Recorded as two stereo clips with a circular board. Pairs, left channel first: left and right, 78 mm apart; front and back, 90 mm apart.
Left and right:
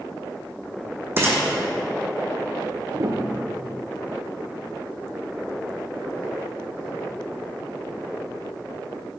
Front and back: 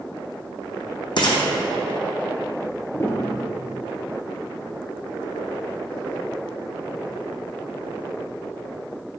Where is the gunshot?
30° right, 1.2 m.